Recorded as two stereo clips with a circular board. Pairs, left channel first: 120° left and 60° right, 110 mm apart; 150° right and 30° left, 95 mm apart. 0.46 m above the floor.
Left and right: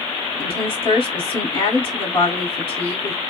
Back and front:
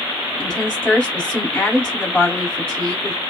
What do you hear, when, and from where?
0.4 s a woman speaking: 130° left, 1.8 m